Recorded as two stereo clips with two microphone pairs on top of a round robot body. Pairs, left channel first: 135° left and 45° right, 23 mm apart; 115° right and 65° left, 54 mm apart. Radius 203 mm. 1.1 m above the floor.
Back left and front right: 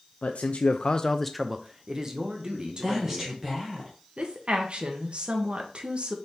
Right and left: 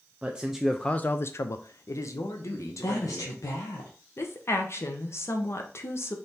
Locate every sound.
0.2 s a man speaking: 135° left, 0.6 m; by 3.4 s 95° right, 1.5 m
2.8 s a woman speaking: 110° right, 1.0 m
4.2 s a woman speaking: 80° right, 0.9 m